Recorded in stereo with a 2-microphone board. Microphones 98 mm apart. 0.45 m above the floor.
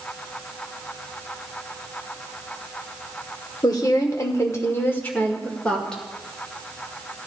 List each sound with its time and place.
3.6 s a woman speaking: 40° left (ahead or behind), 1.4 m; by 6.0 s 5° left (ahead or behind), 1.6 m